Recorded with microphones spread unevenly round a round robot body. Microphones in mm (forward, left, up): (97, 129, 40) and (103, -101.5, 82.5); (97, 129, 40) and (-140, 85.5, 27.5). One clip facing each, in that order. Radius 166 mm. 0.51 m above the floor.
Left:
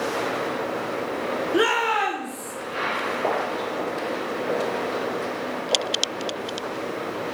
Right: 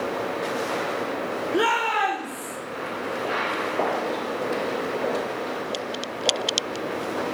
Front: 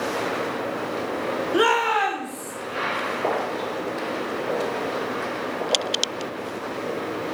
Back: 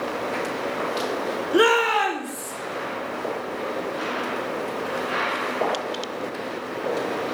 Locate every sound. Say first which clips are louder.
1.5 s a shout: left 3 dB, back 4 dB; 155° left, 1.5 m; by 2.5 s 170° left, 2 m